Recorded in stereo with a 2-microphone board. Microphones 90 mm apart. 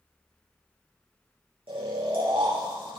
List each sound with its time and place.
1.7 s snoring: 85° right, 4 m